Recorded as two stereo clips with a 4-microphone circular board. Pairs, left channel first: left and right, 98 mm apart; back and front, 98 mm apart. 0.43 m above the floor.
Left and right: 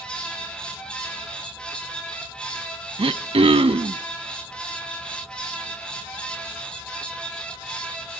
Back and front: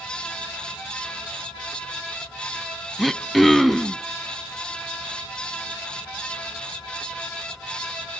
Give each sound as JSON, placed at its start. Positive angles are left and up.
{"t": 3.0, "sound": "throat clearing", "azimuth_deg": -90, "distance_m": 0.6}